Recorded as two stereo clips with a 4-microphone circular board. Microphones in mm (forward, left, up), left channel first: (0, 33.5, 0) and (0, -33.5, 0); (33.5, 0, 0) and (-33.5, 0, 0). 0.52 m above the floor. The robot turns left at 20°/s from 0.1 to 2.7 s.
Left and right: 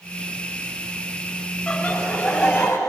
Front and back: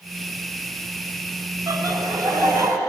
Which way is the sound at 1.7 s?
165° left.